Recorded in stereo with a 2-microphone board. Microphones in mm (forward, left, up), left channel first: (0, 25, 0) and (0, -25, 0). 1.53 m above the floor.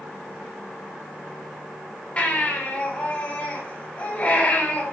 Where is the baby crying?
30° left (ahead or behind), 6 m.